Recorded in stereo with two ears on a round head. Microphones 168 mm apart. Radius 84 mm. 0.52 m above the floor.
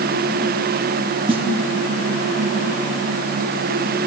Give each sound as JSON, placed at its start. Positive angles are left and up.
{"t": 1.3, "sound": "a snare drum", "side_deg": -30, "distance_m": 0.7}